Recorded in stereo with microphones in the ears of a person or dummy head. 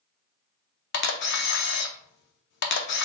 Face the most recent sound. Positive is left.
turn(degrees=65)  # may be behind; listen again after turning